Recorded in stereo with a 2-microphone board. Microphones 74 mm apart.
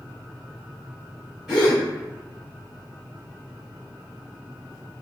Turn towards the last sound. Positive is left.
turn(degrees=-5)  # may be behind; listen again after turning